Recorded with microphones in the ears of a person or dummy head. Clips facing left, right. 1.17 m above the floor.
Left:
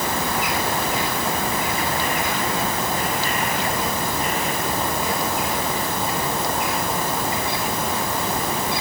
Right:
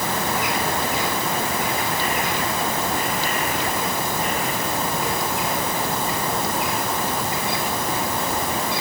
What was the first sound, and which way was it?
Only background noise.